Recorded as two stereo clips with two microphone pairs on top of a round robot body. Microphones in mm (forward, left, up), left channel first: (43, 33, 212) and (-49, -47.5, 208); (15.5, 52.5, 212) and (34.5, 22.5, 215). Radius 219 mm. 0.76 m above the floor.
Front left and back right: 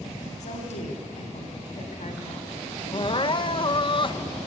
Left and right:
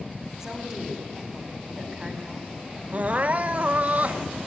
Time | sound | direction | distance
0.4 | a woman speaking | 20° left | 3.5 m
2.9 | crying | 5° right | 0.6 m